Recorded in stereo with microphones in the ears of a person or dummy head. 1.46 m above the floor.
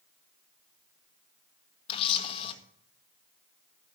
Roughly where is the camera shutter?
Left.